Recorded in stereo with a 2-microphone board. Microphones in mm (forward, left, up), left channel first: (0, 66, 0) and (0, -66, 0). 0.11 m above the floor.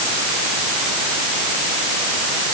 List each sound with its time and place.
Only background noise.